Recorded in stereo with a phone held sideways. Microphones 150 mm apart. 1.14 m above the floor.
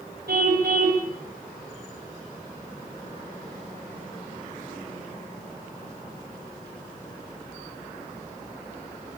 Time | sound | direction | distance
0.3 | a car horn | 85° right | 3.5 m